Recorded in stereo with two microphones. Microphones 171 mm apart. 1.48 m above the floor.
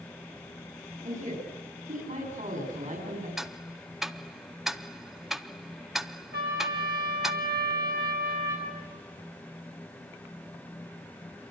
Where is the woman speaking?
50° right (ahead or behind), 5 m.